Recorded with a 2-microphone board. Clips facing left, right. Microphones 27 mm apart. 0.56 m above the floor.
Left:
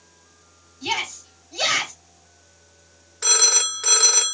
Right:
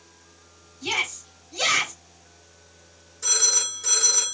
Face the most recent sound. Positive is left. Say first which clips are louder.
# left 4 dB
turn(degrees=60)  # may be behind; listen again after turning